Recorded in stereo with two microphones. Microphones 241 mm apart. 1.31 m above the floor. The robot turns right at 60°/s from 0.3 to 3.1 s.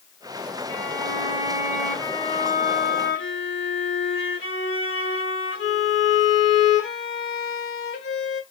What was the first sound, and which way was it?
A violin, 65° right.